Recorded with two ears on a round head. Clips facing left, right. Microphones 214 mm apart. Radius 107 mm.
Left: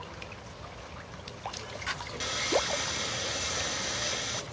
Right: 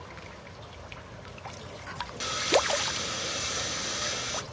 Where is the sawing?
5° right (ahead or behind), 0.5 m.